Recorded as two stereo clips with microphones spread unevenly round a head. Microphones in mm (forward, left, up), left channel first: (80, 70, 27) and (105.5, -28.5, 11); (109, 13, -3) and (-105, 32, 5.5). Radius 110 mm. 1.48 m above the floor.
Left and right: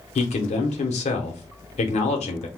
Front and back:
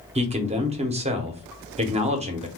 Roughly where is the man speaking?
Behind left.